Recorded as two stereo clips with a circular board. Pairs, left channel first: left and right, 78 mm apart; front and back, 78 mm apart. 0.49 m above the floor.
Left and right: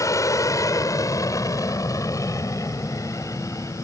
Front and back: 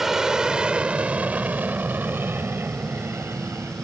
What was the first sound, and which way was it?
An aircraft, 100° left.